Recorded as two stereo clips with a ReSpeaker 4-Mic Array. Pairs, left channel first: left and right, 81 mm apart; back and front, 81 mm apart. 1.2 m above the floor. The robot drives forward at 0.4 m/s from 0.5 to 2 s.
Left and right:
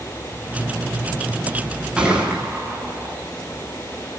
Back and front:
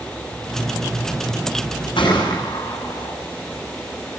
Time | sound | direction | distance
2.0 | a gunshot | 170° right | 10 m